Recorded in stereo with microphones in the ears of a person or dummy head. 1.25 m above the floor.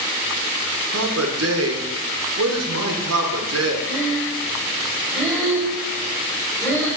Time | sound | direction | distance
0.9 | a man speaking | 70° right (ahead or behind) | 1.2 m
3.9 | breathing | 5° left (ahead or behind) | 2 m